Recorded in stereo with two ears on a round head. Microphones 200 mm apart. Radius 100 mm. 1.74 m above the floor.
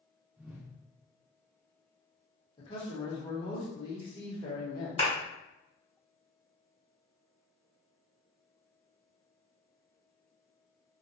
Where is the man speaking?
20° left (ahead or behind), 1.0 m.